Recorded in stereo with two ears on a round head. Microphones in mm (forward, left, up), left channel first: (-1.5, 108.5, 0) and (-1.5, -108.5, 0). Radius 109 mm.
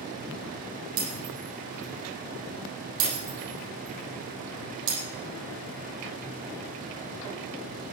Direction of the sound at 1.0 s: 80° right.